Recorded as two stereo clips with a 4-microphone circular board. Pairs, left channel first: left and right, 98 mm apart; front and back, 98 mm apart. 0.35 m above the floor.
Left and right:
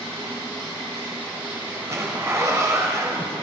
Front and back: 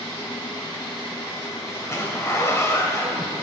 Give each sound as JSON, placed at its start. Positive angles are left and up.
{"t": 1.7, "sound": "a zipper", "azimuth_deg": -45, "distance_m": 2.0}